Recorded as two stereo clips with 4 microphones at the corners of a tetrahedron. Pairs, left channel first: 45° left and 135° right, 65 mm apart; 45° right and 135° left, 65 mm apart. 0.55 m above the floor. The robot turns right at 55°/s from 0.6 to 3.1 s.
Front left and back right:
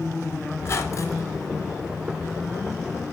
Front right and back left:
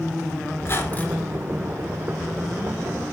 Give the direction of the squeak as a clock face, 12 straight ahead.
12 o'clock.